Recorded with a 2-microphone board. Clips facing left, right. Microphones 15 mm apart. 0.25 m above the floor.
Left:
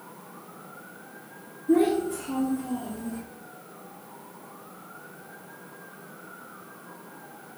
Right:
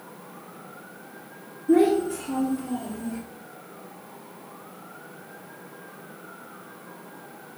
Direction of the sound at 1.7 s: 25° right (ahead or behind).